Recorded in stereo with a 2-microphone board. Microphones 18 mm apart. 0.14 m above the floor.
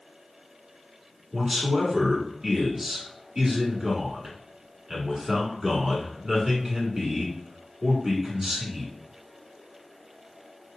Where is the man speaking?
20° right (ahead or behind), 1.5 m.